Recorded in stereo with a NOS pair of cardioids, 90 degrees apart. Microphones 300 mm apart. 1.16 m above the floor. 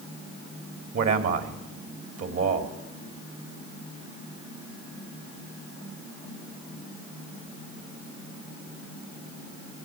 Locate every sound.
0.9 s a man speaking: 50° right, 2.5 m